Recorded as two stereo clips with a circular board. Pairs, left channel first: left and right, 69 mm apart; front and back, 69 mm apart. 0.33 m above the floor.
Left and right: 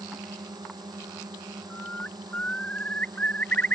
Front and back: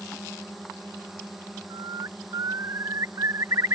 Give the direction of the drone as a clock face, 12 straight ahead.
3 o'clock.